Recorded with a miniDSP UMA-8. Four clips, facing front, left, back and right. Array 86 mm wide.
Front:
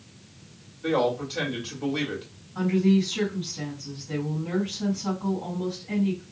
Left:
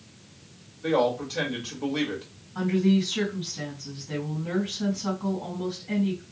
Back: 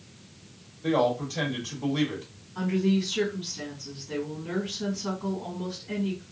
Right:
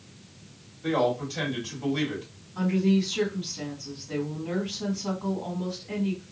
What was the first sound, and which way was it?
A man speaking, 50° left.